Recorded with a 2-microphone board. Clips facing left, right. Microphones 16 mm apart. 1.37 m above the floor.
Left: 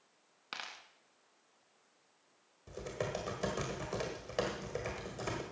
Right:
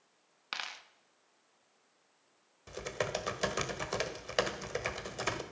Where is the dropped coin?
25° right (ahead or behind), 0.8 m.